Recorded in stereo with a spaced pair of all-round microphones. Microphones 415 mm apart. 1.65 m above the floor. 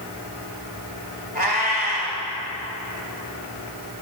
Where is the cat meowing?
20° right (ahead or behind), 1.6 m.